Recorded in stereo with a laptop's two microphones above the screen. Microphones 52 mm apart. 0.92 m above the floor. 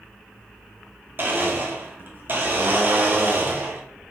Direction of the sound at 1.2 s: 40° right (ahead or behind).